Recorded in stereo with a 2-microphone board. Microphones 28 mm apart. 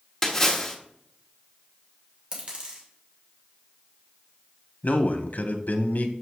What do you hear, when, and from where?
0.2 s a splash: 15° left (ahead or behind), 1.1 m
2.3 s a dropped coin: 35° right (ahead or behind), 2.5 m
4.8 s a man speaking: 65° left (ahead or behind), 0.9 m